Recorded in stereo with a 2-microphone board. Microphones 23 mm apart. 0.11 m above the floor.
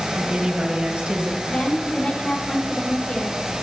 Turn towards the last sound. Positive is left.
turn(degrees=55)  # may be behind; listen again after turning